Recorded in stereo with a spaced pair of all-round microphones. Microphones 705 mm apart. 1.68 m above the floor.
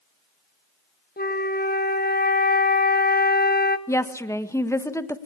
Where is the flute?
15° left (ahead or behind), 1.1 m.